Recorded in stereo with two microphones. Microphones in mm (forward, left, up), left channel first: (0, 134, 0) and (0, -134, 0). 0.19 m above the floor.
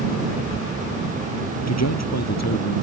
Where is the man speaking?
75° left (ahead or behind).